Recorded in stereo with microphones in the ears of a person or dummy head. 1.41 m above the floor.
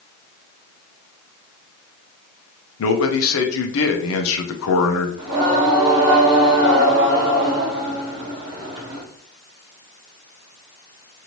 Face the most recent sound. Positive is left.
turn(degrees=-25)  # may be behind; listen again after turning